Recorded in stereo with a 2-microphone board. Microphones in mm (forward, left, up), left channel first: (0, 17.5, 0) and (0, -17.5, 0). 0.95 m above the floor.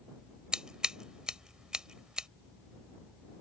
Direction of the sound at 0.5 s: 20° right (ahead or behind).